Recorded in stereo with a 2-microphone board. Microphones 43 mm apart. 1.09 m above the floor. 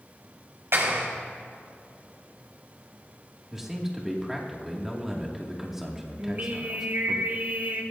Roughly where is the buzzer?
I don't hear a buzzer.